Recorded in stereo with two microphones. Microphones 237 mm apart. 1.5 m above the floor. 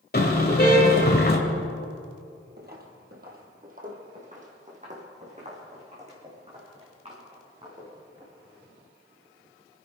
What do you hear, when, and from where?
0.1 s a car horn: 45° left (ahead or behind), 2.5 m
2.6 s footsteps: 40° right (ahead or behind), 2 m; by 8.3 s 25° right (ahead or behind), 8 m